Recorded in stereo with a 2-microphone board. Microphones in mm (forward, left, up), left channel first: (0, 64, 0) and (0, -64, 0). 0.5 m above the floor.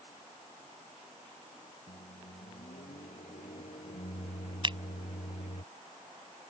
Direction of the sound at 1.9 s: 65° left (ahead or behind).